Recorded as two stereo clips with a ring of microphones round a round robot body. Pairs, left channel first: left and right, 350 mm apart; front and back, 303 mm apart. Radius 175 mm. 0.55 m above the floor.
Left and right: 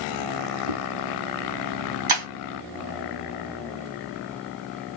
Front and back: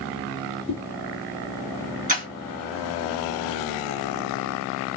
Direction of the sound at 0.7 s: 110° right.